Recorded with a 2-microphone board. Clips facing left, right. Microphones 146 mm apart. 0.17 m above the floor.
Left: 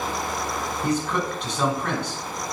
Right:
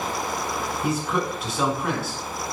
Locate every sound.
0.8 s a man speaking: 5° right (ahead or behind), 1.5 m